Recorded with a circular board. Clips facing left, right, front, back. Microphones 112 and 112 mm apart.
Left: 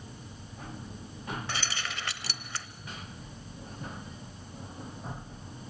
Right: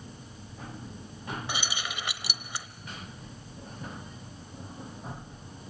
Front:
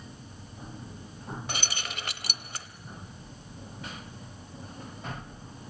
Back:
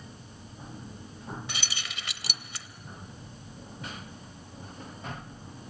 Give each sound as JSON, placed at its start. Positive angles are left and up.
{"t": 1.5, "sound": "keys jangling", "azimuth_deg": -20, "distance_m": 0.8}